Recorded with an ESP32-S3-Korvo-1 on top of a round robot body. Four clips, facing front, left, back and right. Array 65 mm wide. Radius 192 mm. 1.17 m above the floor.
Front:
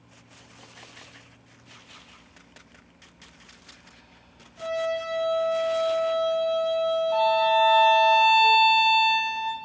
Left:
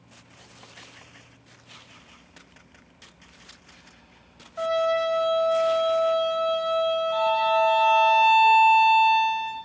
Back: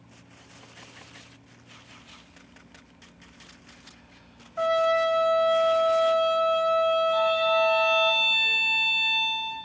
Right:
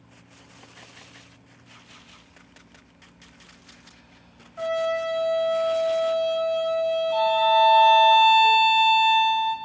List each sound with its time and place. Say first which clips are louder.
4.6 s a trumpet: left 2 dB, back 6 dB; 165° left, 2.5 m
7.1 s a violin: right 4 dB, front 2 dB; 5° right, 2.5 m